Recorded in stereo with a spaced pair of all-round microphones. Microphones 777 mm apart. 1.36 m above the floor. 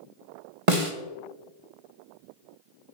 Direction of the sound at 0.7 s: 45° right (ahead or behind).